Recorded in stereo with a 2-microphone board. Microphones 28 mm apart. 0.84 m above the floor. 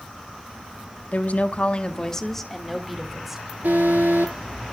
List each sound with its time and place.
1.1 s a woman speaking: 70° left (ahead or behind), 1.5 m; by 3.5 s 15° right (ahead or behind), 3.5 m
3.6 s an alarm: 80° right, 9 m